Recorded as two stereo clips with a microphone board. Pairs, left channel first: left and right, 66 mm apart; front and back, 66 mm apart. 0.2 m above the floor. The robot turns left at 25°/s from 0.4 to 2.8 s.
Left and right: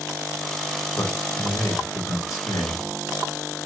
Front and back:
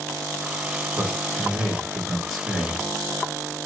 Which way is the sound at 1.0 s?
130° left.